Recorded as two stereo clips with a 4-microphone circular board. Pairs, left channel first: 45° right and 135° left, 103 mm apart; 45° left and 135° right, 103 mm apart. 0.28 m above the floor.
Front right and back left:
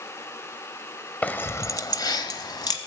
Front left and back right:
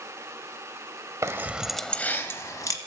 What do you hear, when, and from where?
1.2 s keys jangling: 105° right, 0.7 m; by 2.8 s 5° right, 1.3 m